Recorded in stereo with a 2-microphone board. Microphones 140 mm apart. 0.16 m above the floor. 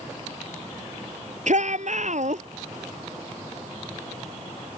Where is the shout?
65° right (ahead or behind).